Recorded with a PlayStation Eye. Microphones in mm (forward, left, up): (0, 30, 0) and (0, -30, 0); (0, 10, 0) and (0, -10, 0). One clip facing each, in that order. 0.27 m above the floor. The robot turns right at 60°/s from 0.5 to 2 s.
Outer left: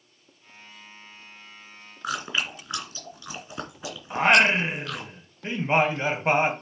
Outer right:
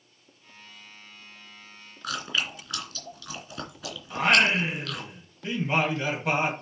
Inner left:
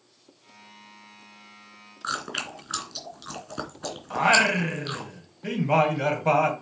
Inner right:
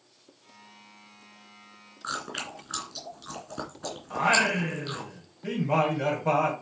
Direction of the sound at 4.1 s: 30° left (ahead or behind).